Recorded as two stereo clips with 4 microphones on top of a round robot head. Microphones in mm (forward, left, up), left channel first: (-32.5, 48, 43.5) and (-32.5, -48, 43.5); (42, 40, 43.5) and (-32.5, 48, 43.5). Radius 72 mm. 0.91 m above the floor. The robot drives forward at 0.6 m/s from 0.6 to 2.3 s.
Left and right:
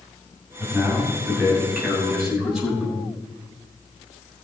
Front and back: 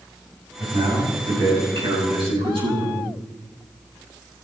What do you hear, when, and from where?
0.6 s a man speaking: 175° right, 6.5 m